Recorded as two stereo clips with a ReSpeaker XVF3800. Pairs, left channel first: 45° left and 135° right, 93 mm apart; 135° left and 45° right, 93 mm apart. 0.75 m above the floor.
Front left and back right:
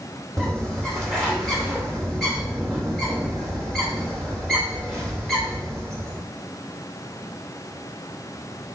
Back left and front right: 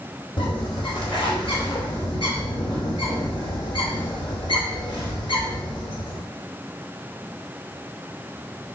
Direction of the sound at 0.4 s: 130° left.